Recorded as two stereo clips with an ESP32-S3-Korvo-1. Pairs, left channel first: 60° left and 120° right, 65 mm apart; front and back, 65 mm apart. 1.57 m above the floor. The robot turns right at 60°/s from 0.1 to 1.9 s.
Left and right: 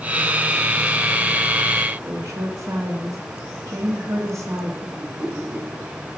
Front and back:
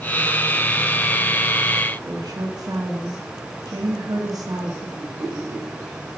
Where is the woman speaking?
160° right, 1.2 m.